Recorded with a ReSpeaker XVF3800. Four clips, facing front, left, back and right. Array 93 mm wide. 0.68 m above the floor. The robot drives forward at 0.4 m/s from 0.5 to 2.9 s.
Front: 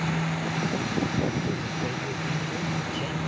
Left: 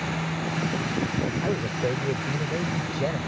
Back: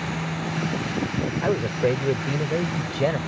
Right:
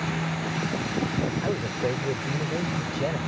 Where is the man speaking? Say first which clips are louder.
Left 1 dB, back 8 dB; 175° right.